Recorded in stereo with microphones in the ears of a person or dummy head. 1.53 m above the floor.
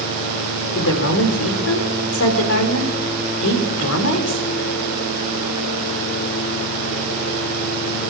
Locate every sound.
0.8 s a woman speaking: 70° left (ahead or behind), 4 m